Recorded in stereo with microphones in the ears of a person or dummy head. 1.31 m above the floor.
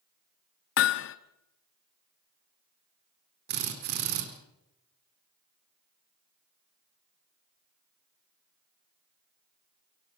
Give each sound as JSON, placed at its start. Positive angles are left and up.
{"t": 0.8, "sound": "hammering", "side_deg": 55, "distance_m": 1.0}
{"t": 3.5, "sound": "a drill", "side_deg": -50, "distance_m": 4.0}